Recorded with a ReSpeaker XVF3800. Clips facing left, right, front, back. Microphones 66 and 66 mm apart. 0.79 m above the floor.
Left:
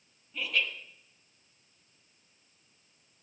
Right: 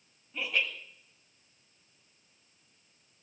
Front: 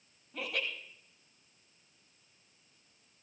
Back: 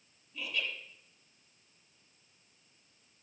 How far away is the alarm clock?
I don't hear an alarm clock.